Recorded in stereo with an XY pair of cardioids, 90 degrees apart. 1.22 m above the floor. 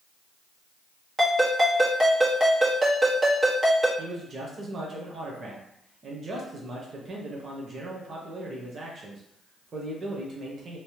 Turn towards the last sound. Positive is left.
turn(degrees=-50)